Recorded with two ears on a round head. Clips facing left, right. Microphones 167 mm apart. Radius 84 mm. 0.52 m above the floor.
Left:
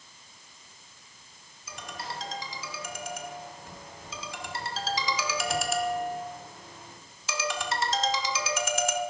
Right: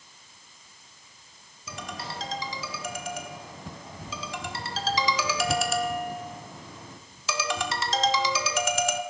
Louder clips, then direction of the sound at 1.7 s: Right 2 dB; 65° right (ahead or behind).